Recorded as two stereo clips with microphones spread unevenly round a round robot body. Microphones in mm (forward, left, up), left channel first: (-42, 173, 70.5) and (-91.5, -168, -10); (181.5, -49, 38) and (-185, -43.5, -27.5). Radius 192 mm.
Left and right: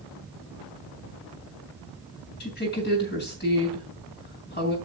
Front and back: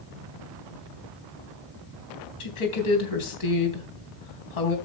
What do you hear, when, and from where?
2.4 s a woman speaking: 15° left, 3.5 m